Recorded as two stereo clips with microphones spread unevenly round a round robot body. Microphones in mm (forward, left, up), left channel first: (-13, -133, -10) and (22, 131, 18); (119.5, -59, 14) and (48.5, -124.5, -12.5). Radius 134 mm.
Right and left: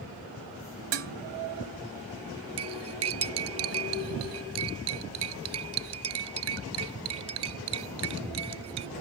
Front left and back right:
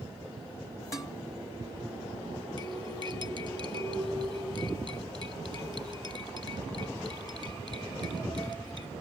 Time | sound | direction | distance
0.9 | dishes clattering | 120° left | ?
2.6 | cutlery clinking | 120° left | ?